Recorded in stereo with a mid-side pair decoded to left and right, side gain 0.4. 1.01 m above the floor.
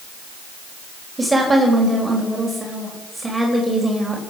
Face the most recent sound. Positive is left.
turn(degrees=-15)